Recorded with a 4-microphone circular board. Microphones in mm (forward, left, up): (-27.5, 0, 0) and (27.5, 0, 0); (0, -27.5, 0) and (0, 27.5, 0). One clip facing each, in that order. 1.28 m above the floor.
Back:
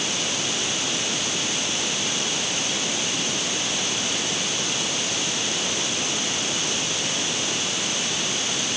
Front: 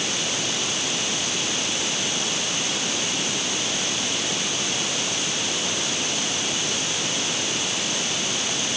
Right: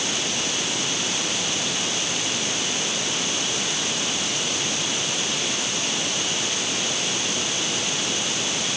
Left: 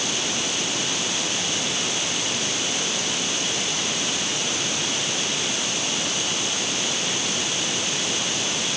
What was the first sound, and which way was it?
Only background noise.